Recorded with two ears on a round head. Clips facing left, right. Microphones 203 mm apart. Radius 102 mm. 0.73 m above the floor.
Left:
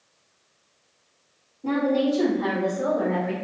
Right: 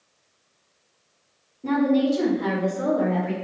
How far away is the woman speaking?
About 1.0 m.